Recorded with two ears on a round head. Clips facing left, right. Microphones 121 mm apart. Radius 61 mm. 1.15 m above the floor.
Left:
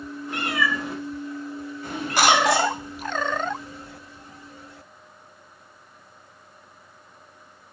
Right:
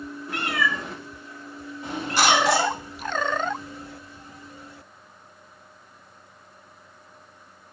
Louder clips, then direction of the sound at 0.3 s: Left 1 dB; 15° left (ahead or behind).